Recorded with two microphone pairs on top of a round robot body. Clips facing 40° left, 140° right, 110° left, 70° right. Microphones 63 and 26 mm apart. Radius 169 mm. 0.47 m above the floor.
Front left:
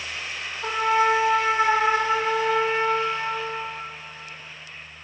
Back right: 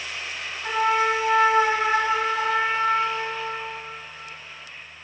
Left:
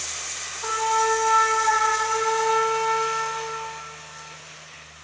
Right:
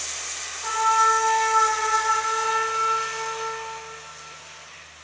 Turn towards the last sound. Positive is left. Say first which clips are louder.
# front left 1 dB, right 3 dB
turn(degrees=70)